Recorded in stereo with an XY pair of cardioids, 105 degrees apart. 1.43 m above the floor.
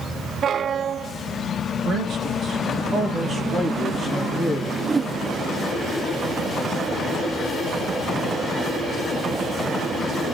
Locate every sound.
1.9 s a man speaking: 65° right, 2 m; by 4.7 s 10° left, 2 m
4.8 s a whoosh: 25° right, 0.6 m